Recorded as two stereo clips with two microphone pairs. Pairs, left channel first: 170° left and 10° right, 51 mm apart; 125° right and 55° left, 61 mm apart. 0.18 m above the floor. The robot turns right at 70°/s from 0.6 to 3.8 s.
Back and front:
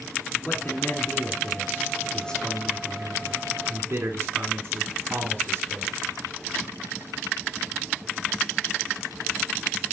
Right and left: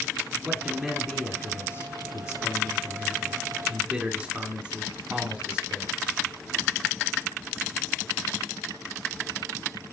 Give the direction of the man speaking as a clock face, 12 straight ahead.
8 o'clock.